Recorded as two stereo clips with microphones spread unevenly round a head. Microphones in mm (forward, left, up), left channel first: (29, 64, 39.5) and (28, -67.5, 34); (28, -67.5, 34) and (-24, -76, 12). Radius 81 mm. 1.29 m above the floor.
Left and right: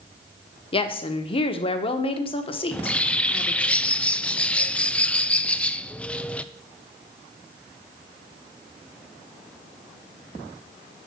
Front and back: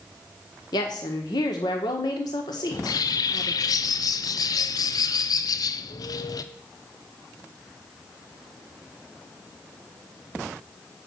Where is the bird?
10° left, 0.5 m.